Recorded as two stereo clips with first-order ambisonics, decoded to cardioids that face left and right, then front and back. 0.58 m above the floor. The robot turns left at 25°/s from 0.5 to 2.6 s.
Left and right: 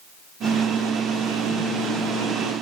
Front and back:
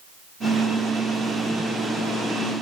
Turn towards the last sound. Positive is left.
No sound to turn to.